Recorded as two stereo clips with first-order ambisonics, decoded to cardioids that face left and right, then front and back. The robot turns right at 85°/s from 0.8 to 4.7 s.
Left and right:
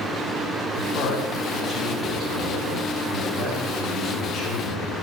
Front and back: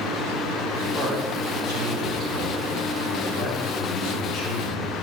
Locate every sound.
0.8 s a man speaking: 105° left, 5.5 m; by 5.0 s 75° left, 5.5 m